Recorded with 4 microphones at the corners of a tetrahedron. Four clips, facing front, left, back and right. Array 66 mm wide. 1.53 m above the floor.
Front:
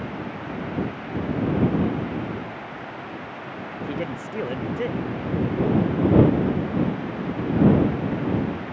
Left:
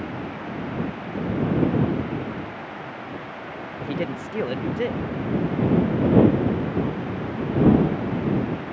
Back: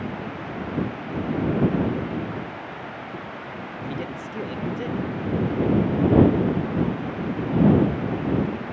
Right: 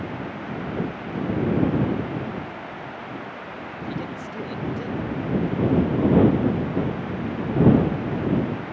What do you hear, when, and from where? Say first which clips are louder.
3.8 s a man speaking: left 4 dB, front 3 dB; 65° left